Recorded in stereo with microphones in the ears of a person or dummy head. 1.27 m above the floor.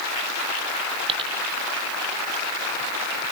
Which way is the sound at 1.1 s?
30° right (ahead or behind).